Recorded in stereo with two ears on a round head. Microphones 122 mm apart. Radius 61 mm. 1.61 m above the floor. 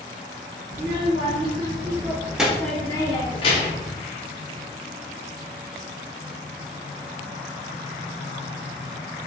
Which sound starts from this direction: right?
A child speaking, at 0.7 s.